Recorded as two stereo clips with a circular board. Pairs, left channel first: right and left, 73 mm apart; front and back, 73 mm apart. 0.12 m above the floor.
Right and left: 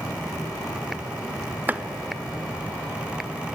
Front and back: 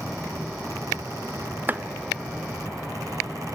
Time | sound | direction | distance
1.7 | chopping | 140° left | 0.7 m